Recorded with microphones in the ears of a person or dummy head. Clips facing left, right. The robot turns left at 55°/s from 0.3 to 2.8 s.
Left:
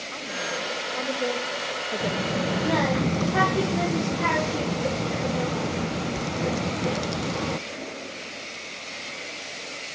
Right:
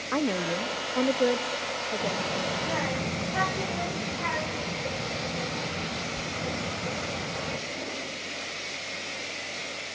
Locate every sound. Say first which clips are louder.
0.1 s a woman speaking: right 7 dB; 105° right, 0.8 m; by 2.7 s 125° left, 0.8 m
2.0 s a child speaking: left 5 dB; 20° left (ahead or behind), 0.6 m; by 7.6 s 60° left (ahead or behind), 0.6 m